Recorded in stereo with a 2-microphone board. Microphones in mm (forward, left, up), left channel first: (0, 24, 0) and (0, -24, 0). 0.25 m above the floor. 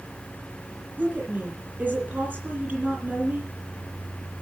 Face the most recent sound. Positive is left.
turn(degrees=-35)  # may be behind; listen again after turning